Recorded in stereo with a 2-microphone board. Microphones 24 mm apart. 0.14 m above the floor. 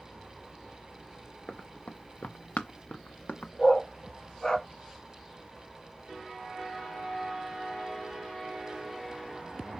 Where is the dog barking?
25° left (ahead or behind), 1.1 m.